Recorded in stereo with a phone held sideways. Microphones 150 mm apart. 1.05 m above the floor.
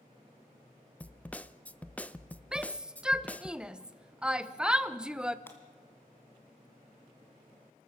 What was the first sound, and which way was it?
A snare drum, 10° left (ahead or behind).